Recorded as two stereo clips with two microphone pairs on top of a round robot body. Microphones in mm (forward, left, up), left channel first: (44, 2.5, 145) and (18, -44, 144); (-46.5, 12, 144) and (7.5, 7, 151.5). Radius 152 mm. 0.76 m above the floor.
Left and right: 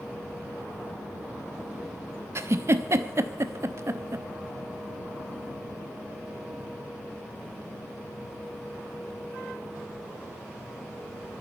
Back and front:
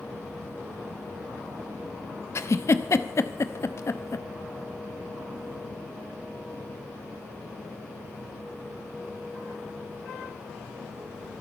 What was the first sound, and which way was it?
A giggle, 155° right.